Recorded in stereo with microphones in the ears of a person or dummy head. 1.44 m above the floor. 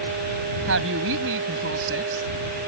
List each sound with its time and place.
0.7 s a woman speaking: 70° right (ahead or behind)